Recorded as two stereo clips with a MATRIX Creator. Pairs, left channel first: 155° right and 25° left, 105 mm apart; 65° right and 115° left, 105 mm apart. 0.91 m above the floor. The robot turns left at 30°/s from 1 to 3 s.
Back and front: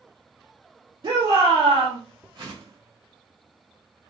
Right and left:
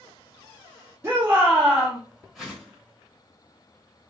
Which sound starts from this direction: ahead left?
A shout, at 1.0 s.